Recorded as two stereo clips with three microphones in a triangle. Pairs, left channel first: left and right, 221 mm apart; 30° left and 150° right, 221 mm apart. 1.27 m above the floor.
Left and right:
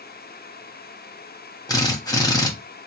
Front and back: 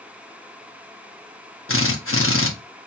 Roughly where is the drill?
Ahead.